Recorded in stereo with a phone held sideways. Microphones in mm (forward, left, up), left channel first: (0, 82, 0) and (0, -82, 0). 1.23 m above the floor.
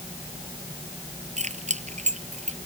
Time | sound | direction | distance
1.4 | keys jangling | 45° right (ahead or behind) | ?